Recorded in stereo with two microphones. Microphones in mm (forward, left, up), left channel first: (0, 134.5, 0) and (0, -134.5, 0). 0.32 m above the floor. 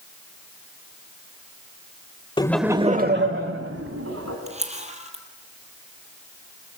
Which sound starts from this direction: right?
A camera shutter, at 4.5 s.